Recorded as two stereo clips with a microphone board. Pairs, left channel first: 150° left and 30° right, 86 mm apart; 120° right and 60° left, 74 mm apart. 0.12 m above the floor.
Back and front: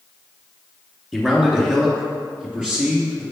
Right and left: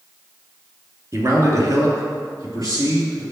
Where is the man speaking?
50° left, 1.7 m; by 3.2 s 45° left, 3 m.